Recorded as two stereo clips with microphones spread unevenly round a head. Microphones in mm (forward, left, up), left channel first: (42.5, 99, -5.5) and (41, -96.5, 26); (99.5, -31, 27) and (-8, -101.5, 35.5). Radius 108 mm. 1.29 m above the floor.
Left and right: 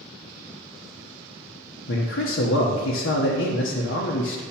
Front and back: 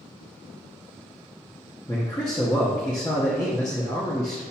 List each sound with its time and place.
1.9 s a man speaking: 100° left, 0.9 m